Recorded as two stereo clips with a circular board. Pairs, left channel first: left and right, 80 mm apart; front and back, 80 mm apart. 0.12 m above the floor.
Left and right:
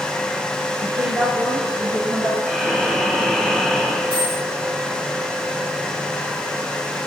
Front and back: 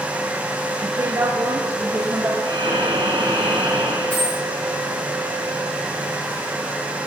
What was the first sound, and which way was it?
A woman speaking, 145° right.